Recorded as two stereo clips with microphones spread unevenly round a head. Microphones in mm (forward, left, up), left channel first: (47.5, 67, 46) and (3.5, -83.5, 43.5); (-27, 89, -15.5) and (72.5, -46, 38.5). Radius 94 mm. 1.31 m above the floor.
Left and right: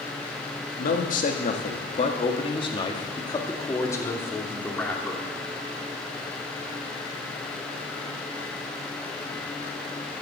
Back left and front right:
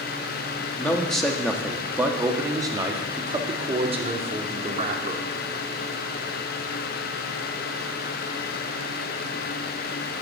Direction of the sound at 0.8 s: 40° left.